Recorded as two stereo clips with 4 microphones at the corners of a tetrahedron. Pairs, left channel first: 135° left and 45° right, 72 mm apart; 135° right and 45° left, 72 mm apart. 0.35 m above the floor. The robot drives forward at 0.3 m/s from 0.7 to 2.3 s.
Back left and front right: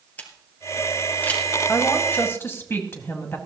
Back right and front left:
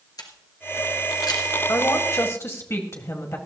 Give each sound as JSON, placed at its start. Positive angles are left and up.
{"t": 0.2, "sound": "a camera shutter", "azimuth_deg": -160, "distance_m": 1.7}
{"t": 1.7, "sound": "a woman speaking", "azimuth_deg": -175, "distance_m": 1.7}